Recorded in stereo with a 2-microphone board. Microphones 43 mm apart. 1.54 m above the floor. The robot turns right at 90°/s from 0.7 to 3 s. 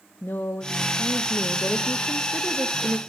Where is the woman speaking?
55° left, 0.6 m; by 3.0 s 100° right, 0.6 m.